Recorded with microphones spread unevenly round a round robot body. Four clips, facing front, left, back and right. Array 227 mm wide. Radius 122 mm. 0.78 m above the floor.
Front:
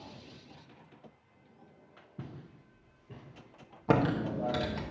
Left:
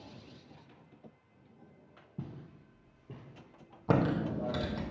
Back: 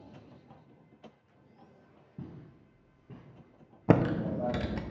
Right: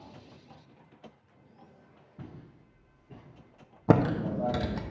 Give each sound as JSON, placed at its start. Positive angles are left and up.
{"t": 2.2, "sound": "footsteps", "azimuth_deg": 120, "distance_m": 4.5}
{"t": 3.9, "sound": "typing on a keyboard", "azimuth_deg": -100, "distance_m": 0.9}